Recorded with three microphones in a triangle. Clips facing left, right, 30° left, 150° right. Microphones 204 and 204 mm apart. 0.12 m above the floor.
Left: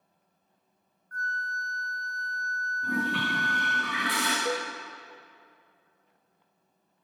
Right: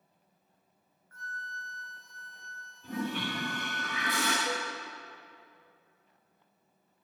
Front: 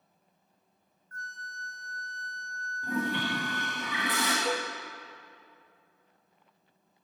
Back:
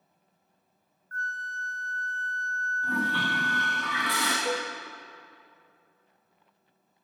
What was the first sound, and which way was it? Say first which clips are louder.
A flute: left 8 dB, back 7 dB; 175° right.